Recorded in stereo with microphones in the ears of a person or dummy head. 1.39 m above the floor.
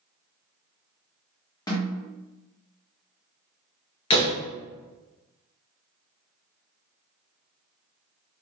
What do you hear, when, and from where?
1.7 s a snare drum: 15° left (ahead or behind), 1.3 m
4.1 s a door slam: 35° left (ahead or behind), 0.8 m